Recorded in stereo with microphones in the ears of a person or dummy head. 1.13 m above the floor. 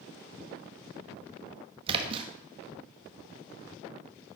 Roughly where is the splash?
Right.